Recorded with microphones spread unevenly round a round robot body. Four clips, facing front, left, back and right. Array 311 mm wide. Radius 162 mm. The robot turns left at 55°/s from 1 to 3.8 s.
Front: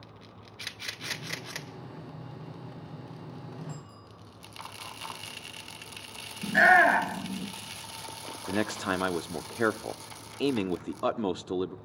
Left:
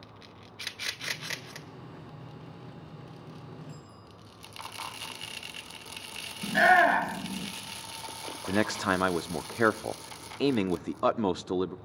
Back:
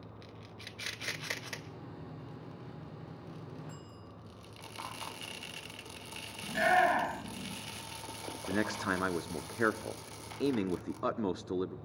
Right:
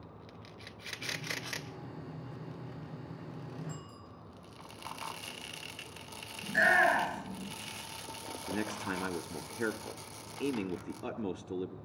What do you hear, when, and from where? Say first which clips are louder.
3.7 s a bicycle bell: right 1 dB, front 4 dB; 70° right, 9.5 m; by 4.1 s 75° right, 9.5 m
6.4 s a shout: left 6 dB, front 7 dB; 40° left, 7.5 m
8.5 s a man speaking: left 9 dB, front 3 dB; 60° left, 0.8 m